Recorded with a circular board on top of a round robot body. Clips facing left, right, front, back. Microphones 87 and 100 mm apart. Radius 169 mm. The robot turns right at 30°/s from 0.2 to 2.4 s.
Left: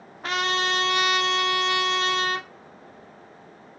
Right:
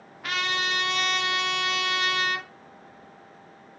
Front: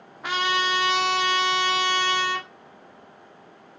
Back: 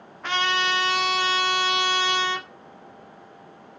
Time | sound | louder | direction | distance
0.2 | a trumpet | left 4 dB, even | 75° left | 0.8 m